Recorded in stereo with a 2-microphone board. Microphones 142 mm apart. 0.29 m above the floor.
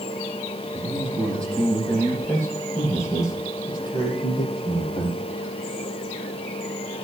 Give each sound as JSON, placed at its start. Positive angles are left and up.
{"t": 0.7, "sound": "a man speaking", "side_deg": 0, "distance_m": 8.0}